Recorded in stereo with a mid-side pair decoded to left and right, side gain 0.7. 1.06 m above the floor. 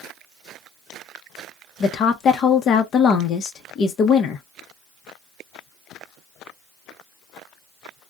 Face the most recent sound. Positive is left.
turn(degrees=40)